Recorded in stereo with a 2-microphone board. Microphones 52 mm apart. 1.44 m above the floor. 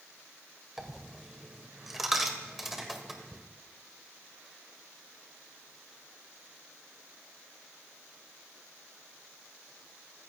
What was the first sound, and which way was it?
A dropped coin, 5° right (ahead or behind).